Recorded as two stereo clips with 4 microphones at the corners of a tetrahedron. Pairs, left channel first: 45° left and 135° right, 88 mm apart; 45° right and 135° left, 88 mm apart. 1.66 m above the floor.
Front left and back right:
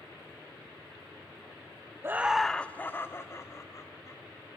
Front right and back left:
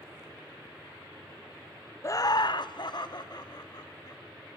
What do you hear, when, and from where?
2.0 s laughter: 85° right, 0.5 m; by 4.2 s 5° right, 2 m